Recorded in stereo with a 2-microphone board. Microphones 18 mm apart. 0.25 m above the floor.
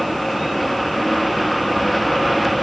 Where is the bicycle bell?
No bicycle bell in this recording.